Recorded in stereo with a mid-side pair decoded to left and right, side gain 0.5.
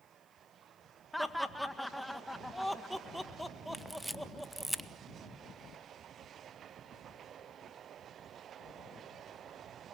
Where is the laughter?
5° left, 1.6 m.